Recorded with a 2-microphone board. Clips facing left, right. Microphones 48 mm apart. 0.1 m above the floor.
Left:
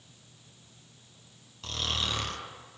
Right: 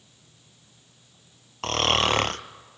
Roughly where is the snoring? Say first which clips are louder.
Right 11 dB; right.